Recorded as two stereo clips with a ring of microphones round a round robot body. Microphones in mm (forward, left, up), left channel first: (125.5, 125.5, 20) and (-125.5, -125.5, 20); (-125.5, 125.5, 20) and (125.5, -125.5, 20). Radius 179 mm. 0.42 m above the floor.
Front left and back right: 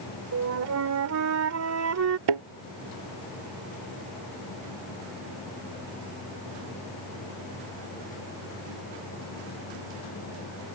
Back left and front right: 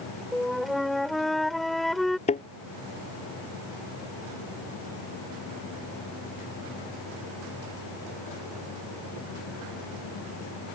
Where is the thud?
155° right.